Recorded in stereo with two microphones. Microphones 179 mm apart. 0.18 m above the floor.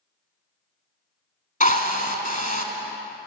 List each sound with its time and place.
1.6 s a drill: 45° left (ahead or behind), 1.0 m